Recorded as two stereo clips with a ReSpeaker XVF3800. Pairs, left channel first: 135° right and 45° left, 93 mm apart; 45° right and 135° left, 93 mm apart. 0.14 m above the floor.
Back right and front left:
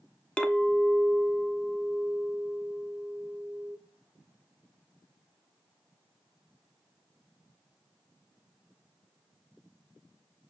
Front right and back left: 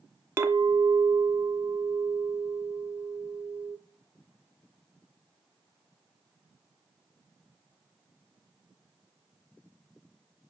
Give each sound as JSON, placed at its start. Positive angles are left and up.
{"t": 0.4, "sound": "a clink", "azimuth_deg": 160, "distance_m": 0.7}